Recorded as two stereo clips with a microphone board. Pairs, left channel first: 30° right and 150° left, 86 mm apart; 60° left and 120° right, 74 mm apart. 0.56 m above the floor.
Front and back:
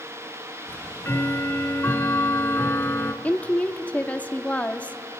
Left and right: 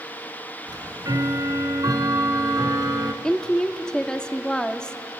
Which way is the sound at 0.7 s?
95° right.